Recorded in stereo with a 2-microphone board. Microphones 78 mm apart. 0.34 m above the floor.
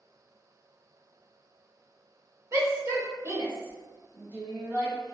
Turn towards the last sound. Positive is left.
turn(degrees=-20)  # may be behind; listen again after turning